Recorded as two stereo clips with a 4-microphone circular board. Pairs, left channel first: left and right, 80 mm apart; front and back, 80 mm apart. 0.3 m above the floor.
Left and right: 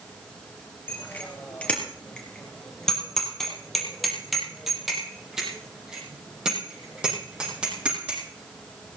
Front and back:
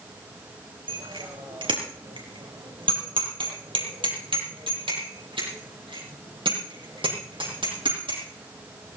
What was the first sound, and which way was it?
A bicycle bell, 160° left.